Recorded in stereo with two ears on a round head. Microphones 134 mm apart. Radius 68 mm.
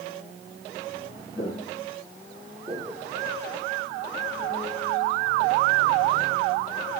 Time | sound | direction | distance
1.4 | footsteps | 25° left (ahead or behind) | 2.5 m